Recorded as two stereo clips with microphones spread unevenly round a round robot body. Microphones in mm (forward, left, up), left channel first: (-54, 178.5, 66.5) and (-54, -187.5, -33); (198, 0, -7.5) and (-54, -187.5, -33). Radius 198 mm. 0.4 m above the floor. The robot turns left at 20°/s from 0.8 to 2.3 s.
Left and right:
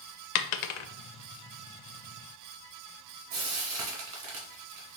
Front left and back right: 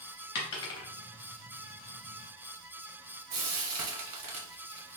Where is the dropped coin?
95° left, 0.6 m.